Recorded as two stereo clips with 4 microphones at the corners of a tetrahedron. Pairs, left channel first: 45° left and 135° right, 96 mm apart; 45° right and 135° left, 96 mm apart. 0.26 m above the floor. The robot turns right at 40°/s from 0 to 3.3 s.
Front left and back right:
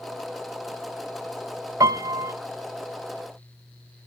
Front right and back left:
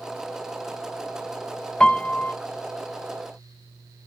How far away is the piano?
About 0.6 m.